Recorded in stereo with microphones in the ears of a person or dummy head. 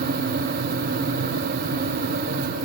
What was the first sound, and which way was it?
Only background noise.